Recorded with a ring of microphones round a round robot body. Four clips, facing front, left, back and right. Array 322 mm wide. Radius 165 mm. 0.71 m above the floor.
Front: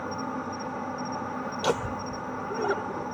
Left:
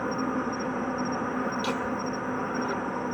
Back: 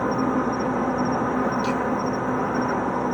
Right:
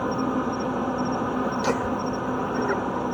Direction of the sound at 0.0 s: 165° right.